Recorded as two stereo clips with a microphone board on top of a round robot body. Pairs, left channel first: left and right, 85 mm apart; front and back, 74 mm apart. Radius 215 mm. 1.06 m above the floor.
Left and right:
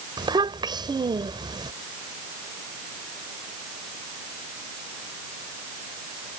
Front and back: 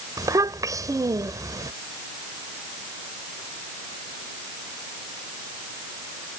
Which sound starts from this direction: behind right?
A child speaking, at 0.2 s.